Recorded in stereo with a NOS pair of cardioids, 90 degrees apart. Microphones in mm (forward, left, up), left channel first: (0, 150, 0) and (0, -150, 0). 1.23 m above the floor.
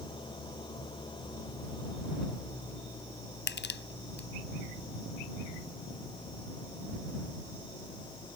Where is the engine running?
15° left.